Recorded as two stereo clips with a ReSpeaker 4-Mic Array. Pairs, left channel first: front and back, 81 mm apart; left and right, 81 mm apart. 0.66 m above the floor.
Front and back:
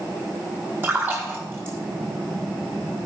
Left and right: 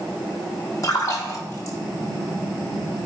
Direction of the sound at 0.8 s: 125° left.